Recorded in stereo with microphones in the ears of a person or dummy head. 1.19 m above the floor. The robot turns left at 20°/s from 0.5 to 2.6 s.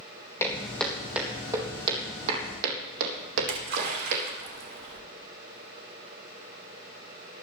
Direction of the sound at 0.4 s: 15° left (ahead or behind).